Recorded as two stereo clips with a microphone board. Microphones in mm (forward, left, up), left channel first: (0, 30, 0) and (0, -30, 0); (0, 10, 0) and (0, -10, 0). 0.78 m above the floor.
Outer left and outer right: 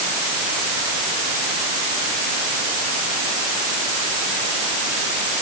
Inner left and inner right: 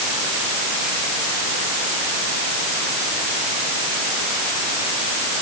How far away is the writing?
I don't hear writing.